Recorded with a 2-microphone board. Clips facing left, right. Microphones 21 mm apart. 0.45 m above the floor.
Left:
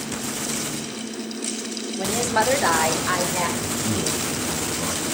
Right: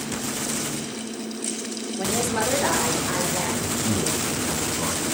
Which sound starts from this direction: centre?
A woman speaking, at 2.0 s.